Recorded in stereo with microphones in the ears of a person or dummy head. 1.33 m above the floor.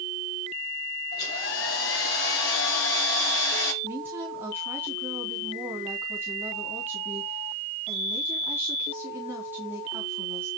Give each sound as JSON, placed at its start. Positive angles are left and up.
{"t": 1.1, "sound": "a hair dryer", "side_deg": 70, "distance_m": 3.5}
{"t": 3.8, "sound": "a woman speaking", "side_deg": -15, "distance_m": 3.5}